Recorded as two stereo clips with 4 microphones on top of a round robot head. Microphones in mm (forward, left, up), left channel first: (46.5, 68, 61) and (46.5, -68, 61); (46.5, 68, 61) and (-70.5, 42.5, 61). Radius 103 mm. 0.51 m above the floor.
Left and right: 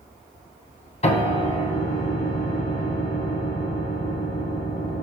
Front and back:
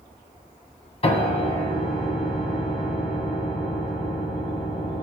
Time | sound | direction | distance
1.0 | a piano | 50° left | 1.6 m